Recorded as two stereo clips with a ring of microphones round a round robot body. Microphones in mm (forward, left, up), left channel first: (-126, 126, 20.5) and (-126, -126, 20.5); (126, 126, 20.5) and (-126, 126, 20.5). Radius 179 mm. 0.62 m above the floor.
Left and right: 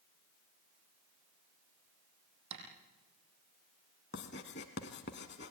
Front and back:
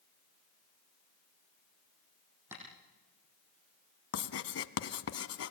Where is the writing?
25° left, 1.3 m.